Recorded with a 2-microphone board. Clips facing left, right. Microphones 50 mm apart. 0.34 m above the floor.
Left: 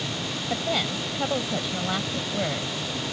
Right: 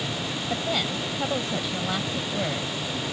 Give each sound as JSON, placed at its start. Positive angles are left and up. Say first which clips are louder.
{"t": 0.5, "sound": "a woman speaking", "louder": "left 1 dB", "side_deg": 10}